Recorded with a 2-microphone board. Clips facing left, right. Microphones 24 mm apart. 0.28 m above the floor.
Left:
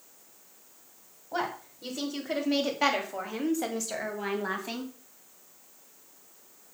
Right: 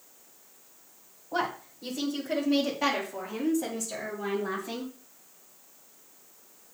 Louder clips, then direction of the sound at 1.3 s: Right 2 dB; 10° left (ahead or behind).